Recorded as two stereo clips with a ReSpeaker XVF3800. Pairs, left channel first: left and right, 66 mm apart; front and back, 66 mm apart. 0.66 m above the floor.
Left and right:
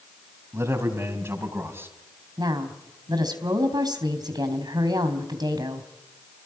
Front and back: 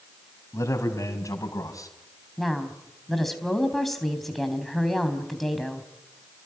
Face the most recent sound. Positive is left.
turn(degrees=-90)